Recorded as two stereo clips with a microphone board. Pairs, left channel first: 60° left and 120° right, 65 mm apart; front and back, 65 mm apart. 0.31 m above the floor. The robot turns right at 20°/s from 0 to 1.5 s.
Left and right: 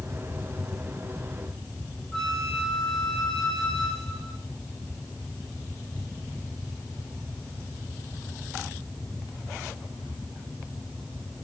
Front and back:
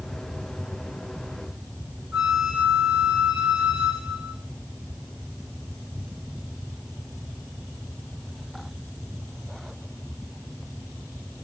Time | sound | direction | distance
2.1 | a flute | 120° left | 1.2 m